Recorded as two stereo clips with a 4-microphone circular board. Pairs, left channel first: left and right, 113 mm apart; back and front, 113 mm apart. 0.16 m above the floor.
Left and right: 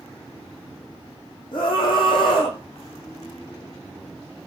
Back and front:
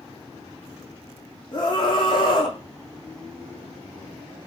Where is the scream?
135° left, 10 m.